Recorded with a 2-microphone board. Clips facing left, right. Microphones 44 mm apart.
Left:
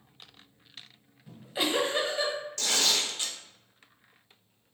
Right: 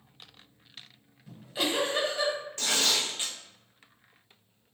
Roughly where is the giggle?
Centre.